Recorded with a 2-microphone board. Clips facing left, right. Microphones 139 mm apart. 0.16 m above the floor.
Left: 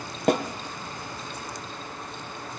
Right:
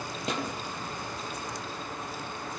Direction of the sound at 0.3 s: 50° left (ahead or behind).